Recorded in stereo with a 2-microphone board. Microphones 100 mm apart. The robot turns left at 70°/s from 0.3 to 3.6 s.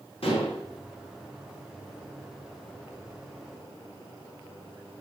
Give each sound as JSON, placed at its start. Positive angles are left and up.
{"t": 0.2, "sound": "dishes clattering", "side_deg": 75, "distance_m": 3.0}